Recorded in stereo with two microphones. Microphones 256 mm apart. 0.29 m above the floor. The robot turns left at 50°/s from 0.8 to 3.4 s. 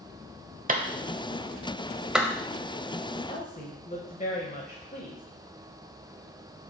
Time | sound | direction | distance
0.7 | a clap | 35° right (ahead or behind) | 0.9 m
3.3 | a woman speaking | 30° left (ahead or behind) | 1.2 m